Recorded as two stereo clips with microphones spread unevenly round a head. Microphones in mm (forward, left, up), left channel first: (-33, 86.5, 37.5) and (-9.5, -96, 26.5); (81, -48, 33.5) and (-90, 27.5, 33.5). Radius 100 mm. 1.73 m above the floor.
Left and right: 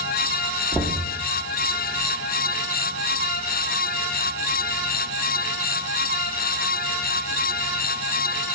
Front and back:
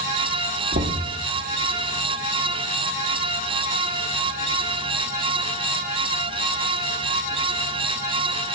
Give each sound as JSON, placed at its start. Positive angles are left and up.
{"t": 0.7, "sound": "knocking", "azimuth_deg": 170, "distance_m": 1.0}